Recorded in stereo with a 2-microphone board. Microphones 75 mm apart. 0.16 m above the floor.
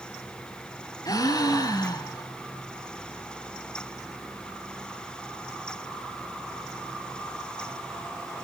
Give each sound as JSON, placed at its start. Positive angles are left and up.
{"t": 1.1, "sound": "a gasp", "side_deg": 60, "distance_m": 1.3}